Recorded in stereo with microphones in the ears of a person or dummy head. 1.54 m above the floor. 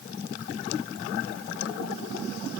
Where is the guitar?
I don't hear a guitar.